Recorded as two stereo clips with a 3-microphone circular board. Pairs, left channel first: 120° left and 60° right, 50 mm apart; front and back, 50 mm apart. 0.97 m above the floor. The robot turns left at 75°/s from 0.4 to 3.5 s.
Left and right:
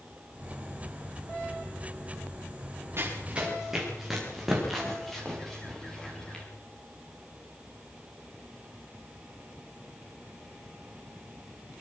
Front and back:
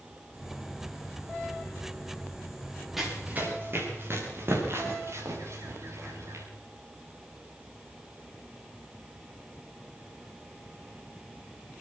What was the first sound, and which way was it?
Running footsteps, 95° right.